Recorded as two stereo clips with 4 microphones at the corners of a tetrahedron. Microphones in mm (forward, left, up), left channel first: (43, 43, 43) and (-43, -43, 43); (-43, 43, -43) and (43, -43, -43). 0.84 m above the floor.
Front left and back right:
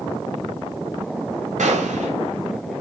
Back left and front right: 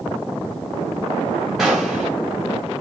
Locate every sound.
1.6 s a gunshot: 130° right, 3.5 m